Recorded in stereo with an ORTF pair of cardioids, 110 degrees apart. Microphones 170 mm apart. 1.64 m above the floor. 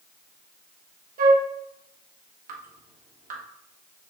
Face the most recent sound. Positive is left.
turn(degrees=-55)